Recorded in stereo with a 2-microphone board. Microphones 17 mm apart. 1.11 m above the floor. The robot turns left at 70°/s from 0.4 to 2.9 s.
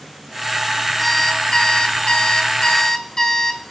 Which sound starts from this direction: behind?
An alarm clock, at 1.0 s.